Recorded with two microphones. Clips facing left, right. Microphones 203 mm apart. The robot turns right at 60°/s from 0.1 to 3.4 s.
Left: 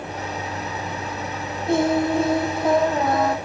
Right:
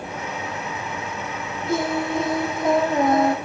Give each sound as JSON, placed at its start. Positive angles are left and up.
{"t": 1.7, "sound": "singing", "azimuth_deg": 115, "distance_m": 4.0}